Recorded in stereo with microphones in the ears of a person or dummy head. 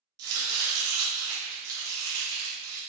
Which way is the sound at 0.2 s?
80° right.